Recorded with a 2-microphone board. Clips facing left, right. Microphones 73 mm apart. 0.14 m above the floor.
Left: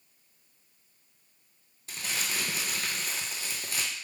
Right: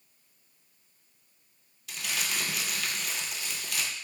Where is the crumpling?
35° left (ahead or behind), 0.8 m.